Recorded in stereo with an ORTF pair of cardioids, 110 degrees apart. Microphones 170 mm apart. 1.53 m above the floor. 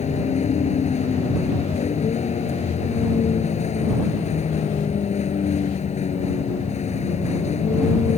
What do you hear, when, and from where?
0.0 s a vehicle: 40° left